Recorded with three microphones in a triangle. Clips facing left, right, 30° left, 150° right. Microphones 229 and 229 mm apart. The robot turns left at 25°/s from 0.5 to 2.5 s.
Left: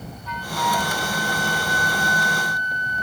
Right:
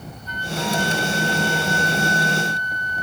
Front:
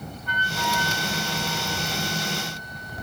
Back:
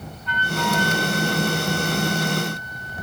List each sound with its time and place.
0.3 s a flute: 70° left; by 3.0 s 20° left